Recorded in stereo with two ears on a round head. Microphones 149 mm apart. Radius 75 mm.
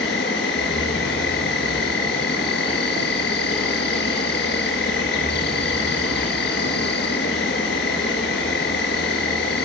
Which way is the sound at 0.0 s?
75° left (ahead or behind).